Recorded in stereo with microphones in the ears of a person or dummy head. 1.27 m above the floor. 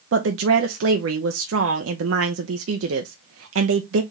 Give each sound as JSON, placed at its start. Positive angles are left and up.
{"t": 0.1, "sound": "a woman speaking", "side_deg": -80, "distance_m": 0.7}